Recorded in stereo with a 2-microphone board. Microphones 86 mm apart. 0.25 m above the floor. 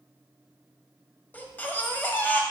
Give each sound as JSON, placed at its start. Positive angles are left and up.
{"t": 1.3, "sound": "a baby crying", "side_deg": 20, "distance_m": 0.8}